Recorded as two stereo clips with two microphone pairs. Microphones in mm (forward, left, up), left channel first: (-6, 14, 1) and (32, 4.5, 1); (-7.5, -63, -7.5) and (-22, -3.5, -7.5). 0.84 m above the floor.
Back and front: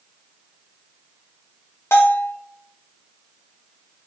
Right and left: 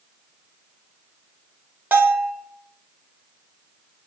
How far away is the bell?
About 0.9 m.